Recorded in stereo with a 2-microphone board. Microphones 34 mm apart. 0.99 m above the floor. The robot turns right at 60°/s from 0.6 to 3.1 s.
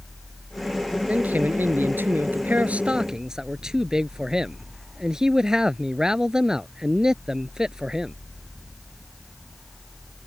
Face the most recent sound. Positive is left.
turn(degrees=-15)